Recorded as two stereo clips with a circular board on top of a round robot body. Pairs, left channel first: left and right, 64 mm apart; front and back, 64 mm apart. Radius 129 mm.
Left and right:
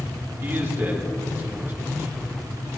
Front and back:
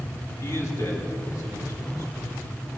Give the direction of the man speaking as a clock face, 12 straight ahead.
1 o'clock.